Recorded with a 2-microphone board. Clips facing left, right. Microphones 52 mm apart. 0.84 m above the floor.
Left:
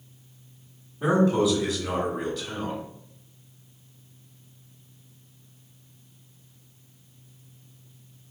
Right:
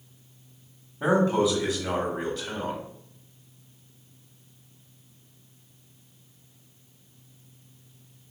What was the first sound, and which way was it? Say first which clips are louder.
A man speaking: left 1 dB; 25° right (ahead or behind).